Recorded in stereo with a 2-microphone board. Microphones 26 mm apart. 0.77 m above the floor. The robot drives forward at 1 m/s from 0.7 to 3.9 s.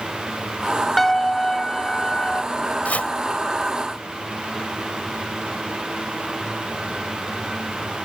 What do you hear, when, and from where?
1.0 s a piano: 10° left (ahead or behind); by 2.4 s 30° left (ahead or behind)
2.9 s chopping: 70° left (ahead or behind)